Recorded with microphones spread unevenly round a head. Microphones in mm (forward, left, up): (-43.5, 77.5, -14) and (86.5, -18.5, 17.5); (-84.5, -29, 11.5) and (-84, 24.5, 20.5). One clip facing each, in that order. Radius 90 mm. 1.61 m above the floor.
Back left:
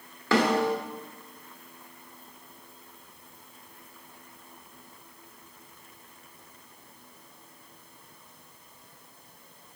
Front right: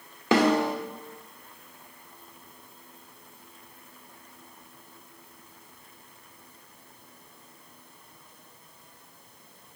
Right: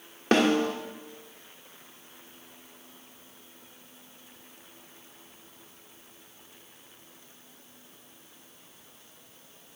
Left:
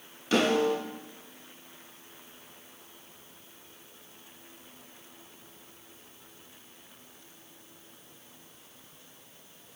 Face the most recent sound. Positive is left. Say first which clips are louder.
# front right 2 dB, right 2 dB
turn(degrees=-80)